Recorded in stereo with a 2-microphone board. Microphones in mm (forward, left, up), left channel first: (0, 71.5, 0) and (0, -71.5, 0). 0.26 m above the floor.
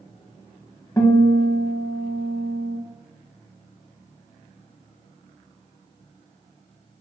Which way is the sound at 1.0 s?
20° left (ahead or behind).